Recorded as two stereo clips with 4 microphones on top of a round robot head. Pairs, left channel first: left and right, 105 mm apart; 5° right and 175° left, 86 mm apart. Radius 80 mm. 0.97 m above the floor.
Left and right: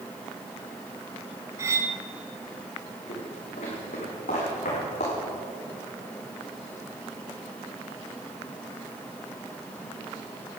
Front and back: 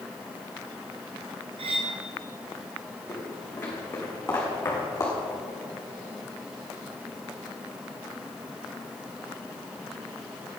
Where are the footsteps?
65° left, 5 m; by 5.2 s 55° left, 5 m.